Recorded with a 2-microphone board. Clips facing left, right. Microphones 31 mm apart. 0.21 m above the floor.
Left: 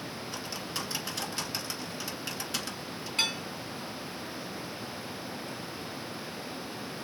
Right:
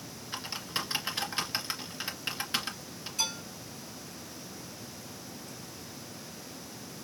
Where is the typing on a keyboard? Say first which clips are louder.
Right 3 dB; 25° right (ahead or behind), 1.6 m.